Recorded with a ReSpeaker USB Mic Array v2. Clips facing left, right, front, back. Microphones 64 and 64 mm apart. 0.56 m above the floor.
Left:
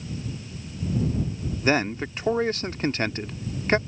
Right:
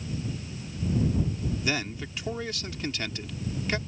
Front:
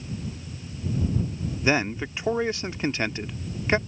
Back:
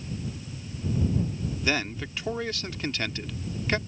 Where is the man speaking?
60° left.